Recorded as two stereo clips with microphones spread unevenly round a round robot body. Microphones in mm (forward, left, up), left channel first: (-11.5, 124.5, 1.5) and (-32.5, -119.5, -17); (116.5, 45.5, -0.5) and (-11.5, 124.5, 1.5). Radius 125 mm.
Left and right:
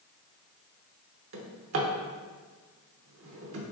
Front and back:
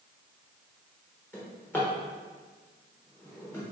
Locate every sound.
1.3 s a drawer: 110° right, 0.9 m